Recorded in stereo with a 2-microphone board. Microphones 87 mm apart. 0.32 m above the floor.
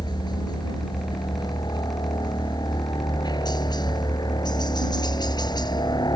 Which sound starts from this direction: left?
A helicopter, at 0.0 s.